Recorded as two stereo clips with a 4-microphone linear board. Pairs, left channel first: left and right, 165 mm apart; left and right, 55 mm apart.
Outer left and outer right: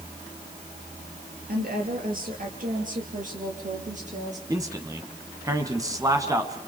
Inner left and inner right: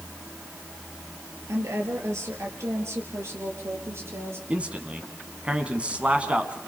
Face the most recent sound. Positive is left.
turn(degrees=-20)  # may be behind; listen again after turning